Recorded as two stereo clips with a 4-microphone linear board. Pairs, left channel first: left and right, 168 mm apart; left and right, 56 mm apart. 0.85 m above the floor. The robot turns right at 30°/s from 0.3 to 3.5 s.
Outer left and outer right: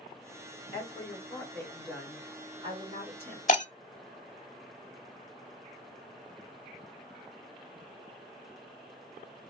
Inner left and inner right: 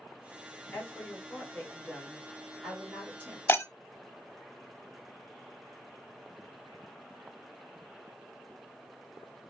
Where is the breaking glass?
45° left (ahead or behind), 0.7 m.